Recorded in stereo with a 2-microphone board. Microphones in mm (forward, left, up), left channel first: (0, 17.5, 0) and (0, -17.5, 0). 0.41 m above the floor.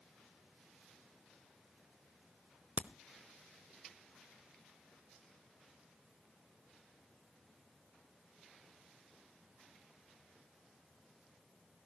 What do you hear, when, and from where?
2.8 s a crack: 50° right (ahead or behind), 0.8 m